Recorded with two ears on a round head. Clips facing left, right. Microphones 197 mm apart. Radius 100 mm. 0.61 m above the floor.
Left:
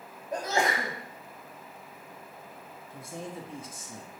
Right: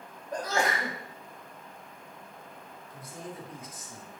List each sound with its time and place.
0.3 s a sneeze: 20° left (ahead or behind), 1.1 m
2.9 s a man speaking: 25° left (ahead or behind), 0.8 m